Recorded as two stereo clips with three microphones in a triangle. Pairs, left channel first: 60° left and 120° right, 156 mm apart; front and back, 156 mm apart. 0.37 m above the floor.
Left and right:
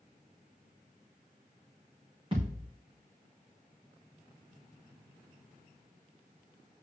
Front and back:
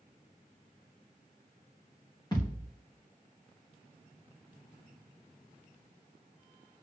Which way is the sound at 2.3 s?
65° right.